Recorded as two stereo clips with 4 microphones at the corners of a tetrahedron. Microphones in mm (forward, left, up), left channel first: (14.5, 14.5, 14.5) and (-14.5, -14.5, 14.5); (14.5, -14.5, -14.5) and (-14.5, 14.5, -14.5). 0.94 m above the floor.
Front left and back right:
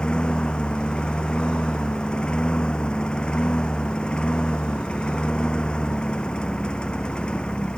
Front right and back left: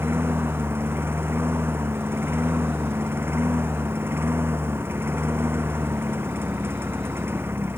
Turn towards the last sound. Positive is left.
turn(degrees=110)